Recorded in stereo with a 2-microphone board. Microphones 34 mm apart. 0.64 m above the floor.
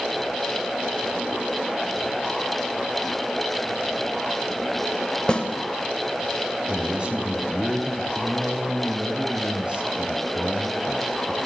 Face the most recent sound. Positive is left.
turn(degrees=-30)  # may be behind; listen again after turning